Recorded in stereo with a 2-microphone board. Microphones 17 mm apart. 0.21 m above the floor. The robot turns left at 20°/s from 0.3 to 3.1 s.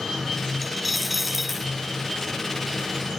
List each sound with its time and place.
0.6 s a dropped coin: 10° left (ahead or behind); by 1.7 s 10° right (ahead or behind)